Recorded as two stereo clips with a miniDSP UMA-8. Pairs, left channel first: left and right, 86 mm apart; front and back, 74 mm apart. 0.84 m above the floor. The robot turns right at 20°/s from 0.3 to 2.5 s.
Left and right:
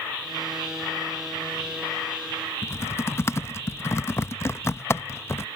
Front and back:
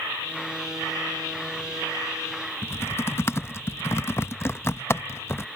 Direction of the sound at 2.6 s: 40° left.